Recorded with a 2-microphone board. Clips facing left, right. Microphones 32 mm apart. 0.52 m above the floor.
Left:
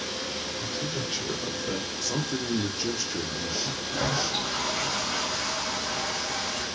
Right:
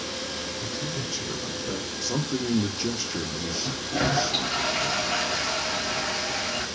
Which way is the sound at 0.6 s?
45° left (ahead or behind).